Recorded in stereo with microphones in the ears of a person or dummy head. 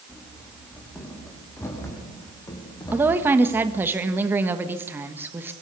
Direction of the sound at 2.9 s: 10° right (ahead or behind).